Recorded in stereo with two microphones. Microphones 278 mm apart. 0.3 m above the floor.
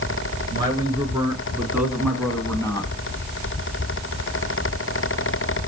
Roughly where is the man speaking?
Centre.